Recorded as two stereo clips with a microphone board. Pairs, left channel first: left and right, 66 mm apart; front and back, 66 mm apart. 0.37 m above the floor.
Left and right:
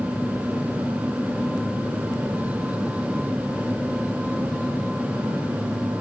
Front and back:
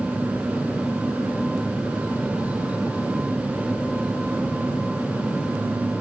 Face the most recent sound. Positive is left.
No sound to turn to.